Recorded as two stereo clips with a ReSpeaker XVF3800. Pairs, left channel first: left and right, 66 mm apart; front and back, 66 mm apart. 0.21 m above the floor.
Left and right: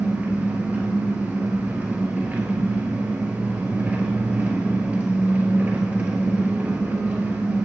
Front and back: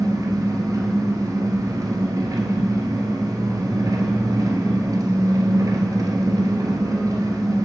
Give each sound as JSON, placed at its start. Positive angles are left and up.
{"t": 0.0, "sound": "an engine running", "azimuth_deg": -150, "distance_m": 1.0}